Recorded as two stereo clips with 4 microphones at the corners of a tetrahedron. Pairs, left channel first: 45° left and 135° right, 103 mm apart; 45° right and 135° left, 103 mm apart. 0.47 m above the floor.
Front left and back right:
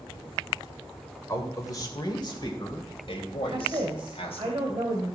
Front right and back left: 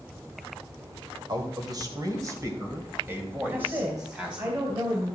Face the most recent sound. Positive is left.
turn(degrees=-175)